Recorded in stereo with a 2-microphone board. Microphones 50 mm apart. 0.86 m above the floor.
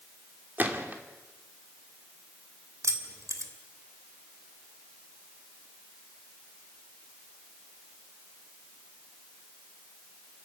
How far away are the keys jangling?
About 2 m.